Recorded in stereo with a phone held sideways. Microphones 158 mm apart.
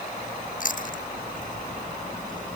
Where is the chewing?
55° left (ahead or behind).